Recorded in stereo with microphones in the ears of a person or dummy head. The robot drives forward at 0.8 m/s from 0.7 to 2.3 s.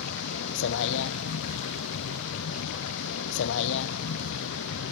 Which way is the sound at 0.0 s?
65° left (ahead or behind).